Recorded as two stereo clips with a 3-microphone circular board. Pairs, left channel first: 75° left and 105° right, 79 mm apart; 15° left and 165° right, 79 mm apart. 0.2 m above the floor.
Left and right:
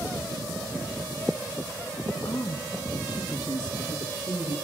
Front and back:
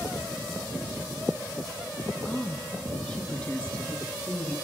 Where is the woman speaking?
90° left, 1.5 m.